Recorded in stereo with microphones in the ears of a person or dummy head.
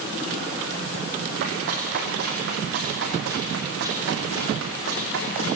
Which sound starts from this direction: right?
Running footsteps, at 1.4 s.